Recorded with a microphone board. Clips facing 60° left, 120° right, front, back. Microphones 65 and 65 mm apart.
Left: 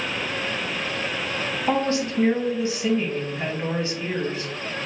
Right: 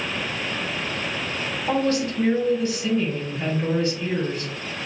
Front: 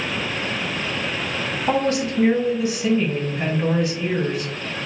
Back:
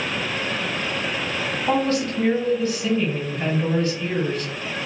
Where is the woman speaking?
55° left, 1.0 m.